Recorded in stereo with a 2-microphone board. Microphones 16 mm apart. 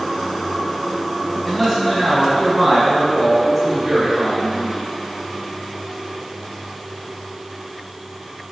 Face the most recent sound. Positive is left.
turn(degrees=-40)  # may be behind; listen again after turning